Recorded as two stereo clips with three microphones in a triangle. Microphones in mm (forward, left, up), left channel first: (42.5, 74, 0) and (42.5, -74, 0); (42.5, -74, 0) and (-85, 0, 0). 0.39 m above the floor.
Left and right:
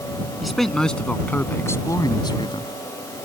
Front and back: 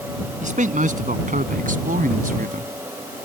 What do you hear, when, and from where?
0.4 s a man speaking: straight behind; by 2.7 s 140° left